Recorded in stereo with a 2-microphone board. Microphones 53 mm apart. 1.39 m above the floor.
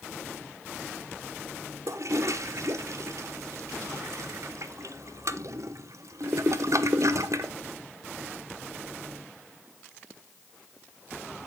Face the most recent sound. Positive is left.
turn(degrees=-70)  # may be behind; listen again after turning